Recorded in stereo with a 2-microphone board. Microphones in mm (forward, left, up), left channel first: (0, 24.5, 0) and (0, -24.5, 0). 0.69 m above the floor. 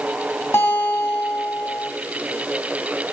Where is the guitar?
55° left (ahead or behind), 3.5 m.